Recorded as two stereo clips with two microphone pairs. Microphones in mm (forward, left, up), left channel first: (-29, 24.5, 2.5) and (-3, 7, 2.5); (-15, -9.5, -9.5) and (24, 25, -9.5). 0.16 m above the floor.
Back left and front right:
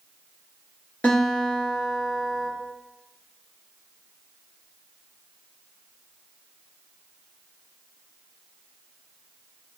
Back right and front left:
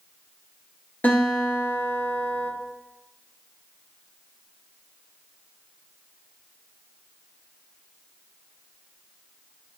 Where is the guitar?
Straight behind, 1.8 m.